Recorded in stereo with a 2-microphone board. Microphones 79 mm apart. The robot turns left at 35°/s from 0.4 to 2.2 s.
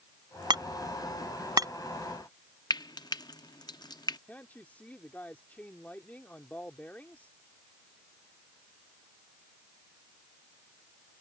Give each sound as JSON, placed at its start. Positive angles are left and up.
{"t": 0.5, "sound": "hammering", "side_deg": -70}
{"t": 2.7, "sound": "frying", "side_deg": 60}
{"t": 4.3, "sound": "a woman speaking", "side_deg": 20}